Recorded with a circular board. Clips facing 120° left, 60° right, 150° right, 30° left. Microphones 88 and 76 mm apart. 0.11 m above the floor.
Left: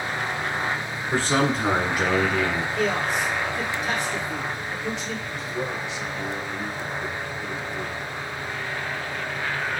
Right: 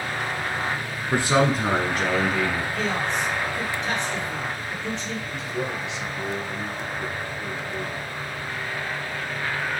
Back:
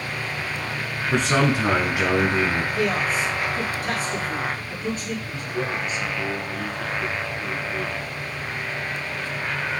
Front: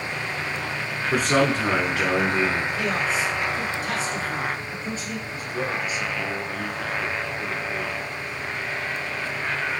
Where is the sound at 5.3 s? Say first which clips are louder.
Right 1 dB, front 1 dB; 40° right, 1.7 m.